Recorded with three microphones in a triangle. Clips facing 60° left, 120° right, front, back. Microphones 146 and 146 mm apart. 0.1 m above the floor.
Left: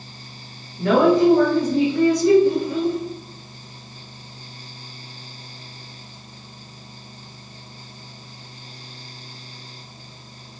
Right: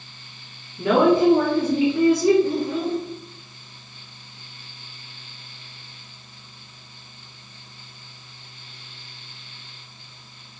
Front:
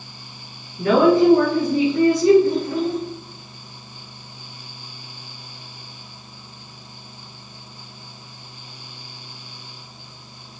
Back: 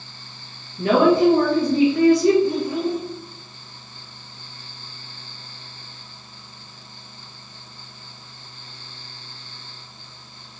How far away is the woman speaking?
About 1.6 m.